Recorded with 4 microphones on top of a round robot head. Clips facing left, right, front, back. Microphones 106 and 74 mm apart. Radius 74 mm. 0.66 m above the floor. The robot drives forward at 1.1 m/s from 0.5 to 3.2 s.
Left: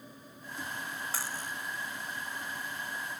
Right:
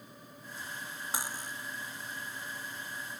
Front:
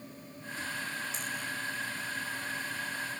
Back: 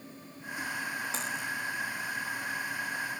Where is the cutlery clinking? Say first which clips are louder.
Right 3 dB, back 3 dB; 165° right; by 1.5 s 170° right.